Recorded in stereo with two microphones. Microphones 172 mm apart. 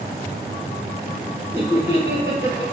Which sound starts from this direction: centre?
Laughter, at 1.5 s.